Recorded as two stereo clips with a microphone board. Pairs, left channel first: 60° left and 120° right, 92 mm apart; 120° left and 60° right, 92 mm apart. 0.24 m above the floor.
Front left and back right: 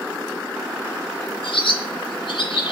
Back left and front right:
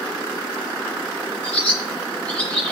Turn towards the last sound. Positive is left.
turn(degrees=45)